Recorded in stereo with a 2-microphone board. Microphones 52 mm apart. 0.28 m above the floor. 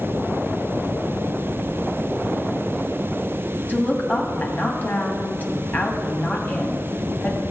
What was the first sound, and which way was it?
A woman speaking, 35° left (ahead or behind).